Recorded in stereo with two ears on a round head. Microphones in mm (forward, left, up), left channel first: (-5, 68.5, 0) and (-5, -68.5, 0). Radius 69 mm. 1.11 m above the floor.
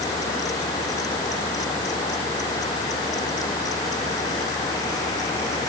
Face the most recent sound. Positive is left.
No sound to turn to.